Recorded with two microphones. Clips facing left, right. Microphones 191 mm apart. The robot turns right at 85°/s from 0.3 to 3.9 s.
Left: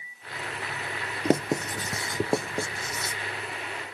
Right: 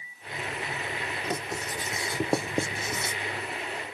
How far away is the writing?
About 0.5 m.